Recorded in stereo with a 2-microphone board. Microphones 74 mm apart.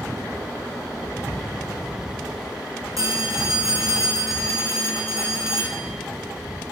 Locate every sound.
3.0 s a phone ringing: 50° right (ahead or behind), 4.5 m